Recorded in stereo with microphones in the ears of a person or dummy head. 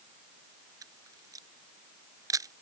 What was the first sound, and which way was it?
A camera shutter, 30° right (ahead or behind).